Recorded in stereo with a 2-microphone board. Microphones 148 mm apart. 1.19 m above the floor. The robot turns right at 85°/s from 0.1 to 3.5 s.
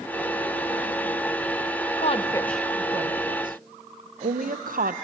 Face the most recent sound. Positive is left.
turn(degrees=-70)  # may be behind; listen again after turning